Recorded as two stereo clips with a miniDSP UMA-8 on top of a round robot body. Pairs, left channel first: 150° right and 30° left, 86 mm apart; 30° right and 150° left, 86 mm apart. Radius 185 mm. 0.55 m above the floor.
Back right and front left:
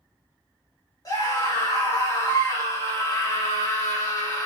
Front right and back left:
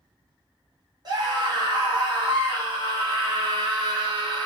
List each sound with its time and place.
1.1 s a scream: 175° left, 2 m